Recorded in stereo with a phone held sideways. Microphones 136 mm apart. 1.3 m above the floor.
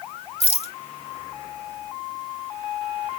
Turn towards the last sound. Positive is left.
turn(degrees=50)  # may be behind; listen again after turning